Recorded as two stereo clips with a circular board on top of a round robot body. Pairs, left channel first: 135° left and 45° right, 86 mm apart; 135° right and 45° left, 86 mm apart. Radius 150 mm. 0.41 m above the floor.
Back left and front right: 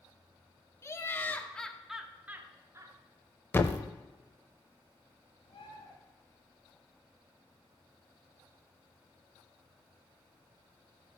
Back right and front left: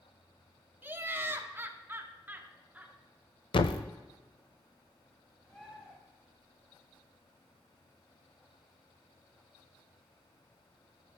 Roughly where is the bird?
Behind left.